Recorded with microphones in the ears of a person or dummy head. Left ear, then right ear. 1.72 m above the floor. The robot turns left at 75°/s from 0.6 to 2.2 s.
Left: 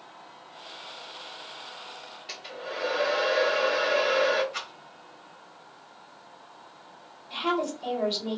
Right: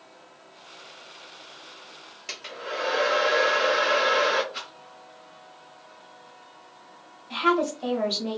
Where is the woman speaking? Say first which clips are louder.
Right 5 dB; 35° right (ahead or behind), 1.0 m.